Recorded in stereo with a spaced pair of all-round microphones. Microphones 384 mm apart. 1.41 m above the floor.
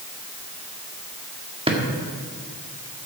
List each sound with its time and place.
1.7 s a drawer: 15° right (ahead or behind), 1.5 m